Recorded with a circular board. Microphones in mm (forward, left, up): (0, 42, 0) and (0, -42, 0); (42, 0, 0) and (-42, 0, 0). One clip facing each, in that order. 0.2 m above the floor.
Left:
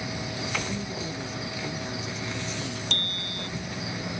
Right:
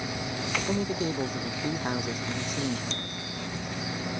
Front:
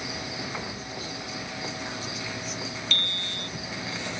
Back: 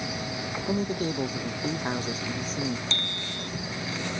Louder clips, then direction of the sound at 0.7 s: Right 5 dB, back 9 dB; 135° right.